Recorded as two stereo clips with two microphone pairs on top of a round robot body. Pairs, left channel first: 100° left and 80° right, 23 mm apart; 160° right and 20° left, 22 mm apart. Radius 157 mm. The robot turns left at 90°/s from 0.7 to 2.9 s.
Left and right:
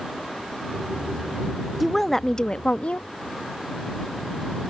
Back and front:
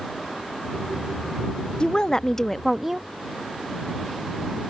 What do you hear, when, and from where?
1.8 s a woman speaking: 150° right; by 3.1 s 110° left